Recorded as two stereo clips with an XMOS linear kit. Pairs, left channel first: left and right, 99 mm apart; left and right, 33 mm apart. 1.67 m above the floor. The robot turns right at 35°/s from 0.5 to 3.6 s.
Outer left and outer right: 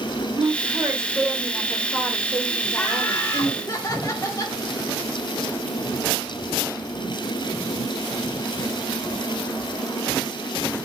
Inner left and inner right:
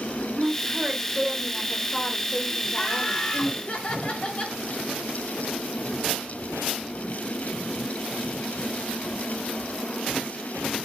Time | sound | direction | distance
0.4 | a woman speaking | 55° right | 1.3 m
2.7 | laughter | 5° left | 1.5 m